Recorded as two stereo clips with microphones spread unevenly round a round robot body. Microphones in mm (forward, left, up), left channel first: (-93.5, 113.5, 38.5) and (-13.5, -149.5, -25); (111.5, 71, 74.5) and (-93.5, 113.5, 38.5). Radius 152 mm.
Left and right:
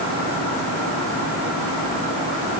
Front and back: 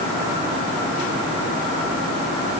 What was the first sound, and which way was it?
Only background noise.